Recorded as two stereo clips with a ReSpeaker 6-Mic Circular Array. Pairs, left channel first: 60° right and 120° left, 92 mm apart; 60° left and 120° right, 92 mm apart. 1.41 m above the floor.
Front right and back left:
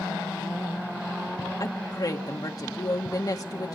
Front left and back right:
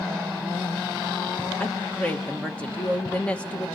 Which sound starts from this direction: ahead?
A woman speaking, at 1.6 s.